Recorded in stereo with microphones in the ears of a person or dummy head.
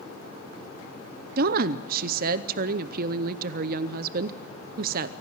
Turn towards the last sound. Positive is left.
turn(degrees=-55)  # may be behind; listen again after turning